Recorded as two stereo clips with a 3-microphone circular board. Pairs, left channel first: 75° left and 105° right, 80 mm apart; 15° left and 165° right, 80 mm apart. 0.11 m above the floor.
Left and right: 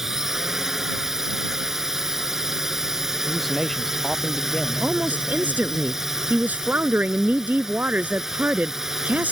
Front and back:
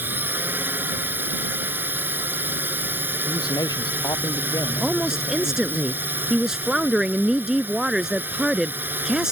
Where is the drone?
Straight behind.